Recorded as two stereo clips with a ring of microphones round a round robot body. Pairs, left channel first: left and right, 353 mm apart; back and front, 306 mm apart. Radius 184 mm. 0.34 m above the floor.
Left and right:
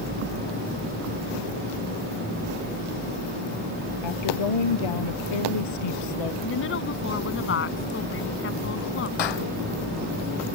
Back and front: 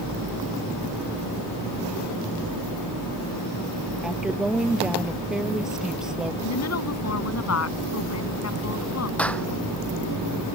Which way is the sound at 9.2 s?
95° left.